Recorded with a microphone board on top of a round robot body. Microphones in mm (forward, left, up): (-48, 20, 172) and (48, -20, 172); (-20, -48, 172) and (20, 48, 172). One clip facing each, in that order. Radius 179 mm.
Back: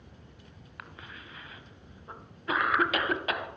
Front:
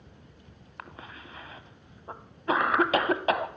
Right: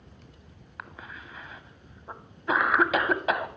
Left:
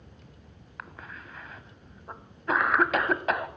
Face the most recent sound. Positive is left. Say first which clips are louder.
# front 3 dB, right 1 dB
turn(degrees=-30)